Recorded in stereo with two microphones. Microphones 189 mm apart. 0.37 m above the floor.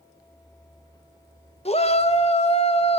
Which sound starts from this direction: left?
A shout, at 1.6 s.